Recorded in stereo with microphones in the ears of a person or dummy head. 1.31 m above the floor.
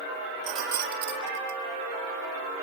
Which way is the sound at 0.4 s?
45° right (ahead or behind).